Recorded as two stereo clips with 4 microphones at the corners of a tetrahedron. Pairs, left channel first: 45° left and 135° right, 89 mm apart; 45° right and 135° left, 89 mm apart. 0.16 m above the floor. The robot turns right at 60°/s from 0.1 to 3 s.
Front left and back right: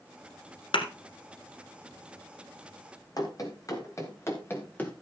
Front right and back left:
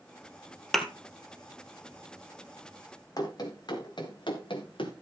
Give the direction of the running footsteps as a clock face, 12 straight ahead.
12 o'clock.